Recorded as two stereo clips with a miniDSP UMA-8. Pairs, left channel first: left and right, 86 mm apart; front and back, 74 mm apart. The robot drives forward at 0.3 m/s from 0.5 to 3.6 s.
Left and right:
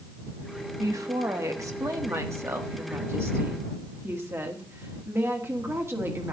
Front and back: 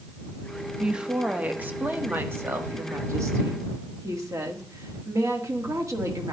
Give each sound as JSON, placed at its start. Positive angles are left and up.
{"t": 0.8, "sound": "a woman speaking", "azimuth_deg": -105, "distance_m": 1.1}